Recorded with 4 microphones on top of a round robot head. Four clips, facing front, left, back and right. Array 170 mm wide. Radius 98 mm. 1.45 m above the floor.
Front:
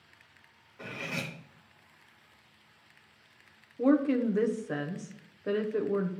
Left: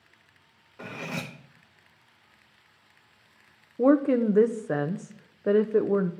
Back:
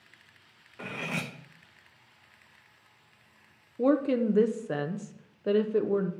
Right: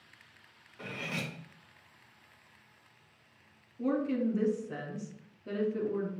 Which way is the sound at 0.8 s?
135° left.